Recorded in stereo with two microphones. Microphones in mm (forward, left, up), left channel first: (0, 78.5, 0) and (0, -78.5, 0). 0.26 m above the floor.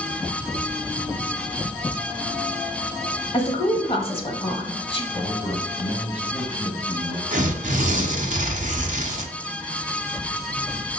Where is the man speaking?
30° left (ahead or behind), 1.8 m.